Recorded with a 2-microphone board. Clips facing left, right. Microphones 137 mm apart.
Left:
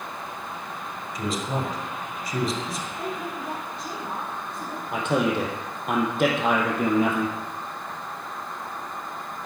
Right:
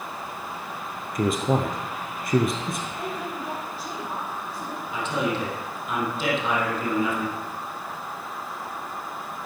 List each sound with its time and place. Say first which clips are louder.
1.1 s a man speaking: right 6 dB; 55° right (ahead or behind), 3 m
3.0 s a woman speaking: even; 5° right (ahead or behind), 6.5 m
4.9 s a man speaking: left 4 dB; 60° left (ahead or behind), 4 m